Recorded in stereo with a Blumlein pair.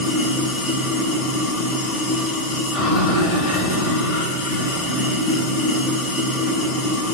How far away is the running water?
About 2.5 m.